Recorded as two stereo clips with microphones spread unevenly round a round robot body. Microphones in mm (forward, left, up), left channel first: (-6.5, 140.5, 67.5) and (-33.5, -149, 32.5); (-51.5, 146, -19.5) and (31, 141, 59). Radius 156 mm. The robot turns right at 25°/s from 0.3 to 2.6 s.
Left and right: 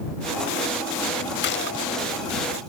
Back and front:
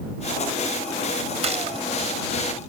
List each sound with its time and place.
1.4 s a gunshot: 30° left; by 1.9 s 40° left